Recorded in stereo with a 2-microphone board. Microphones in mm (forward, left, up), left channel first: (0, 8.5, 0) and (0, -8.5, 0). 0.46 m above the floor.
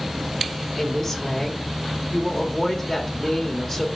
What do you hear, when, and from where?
0.8 s a woman speaking: 20° left (ahead or behind), 1.7 m